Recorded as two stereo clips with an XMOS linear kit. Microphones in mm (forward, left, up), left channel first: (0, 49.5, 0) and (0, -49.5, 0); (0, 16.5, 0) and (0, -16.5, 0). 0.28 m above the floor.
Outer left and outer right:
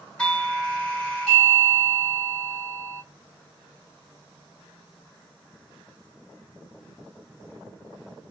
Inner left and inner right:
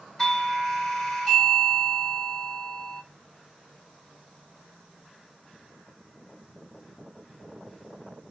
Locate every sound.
0.2 s a doorbell: 10° left (ahead or behind), 2.0 m